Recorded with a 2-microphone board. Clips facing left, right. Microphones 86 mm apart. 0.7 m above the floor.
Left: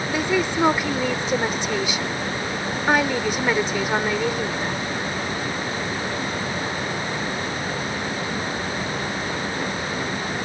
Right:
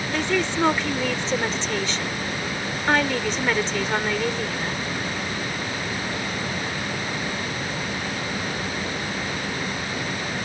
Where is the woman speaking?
10° left (ahead or behind).